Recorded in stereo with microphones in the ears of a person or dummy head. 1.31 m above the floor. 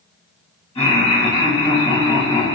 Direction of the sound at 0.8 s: 30° left (ahead or behind).